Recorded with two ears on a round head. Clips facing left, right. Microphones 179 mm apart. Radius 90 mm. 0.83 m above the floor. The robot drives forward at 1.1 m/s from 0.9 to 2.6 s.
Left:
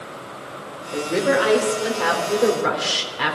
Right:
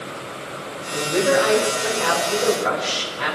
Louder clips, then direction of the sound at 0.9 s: Right 1 dB; 55° left (ahead or behind).